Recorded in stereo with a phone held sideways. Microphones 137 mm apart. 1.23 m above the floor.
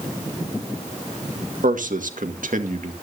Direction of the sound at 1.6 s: 75° right (ahead or behind).